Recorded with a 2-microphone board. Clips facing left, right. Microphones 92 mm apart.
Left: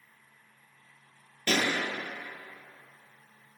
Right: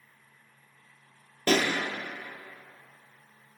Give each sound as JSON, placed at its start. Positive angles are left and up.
{"t": 1.5, "sound": "a pop", "side_deg": -45, "distance_m": 1.0}